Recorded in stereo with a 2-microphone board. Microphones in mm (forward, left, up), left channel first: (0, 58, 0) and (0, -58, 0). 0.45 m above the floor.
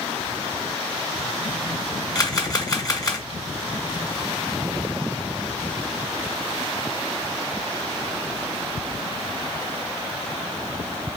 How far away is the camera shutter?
About 1.3 m.